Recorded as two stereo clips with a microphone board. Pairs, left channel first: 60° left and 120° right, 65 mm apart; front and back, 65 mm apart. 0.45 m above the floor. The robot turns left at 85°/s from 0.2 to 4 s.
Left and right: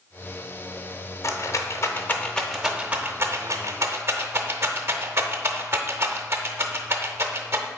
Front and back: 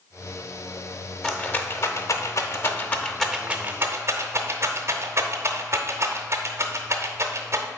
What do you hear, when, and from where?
1.2 s a rattle: 80° left, 0.6 m; by 7.7 s 155° right, 0.6 m